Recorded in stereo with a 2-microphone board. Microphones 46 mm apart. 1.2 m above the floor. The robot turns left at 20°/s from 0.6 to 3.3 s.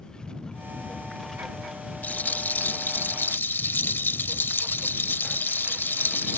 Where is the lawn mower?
20° left; by 6.4 s 35° right.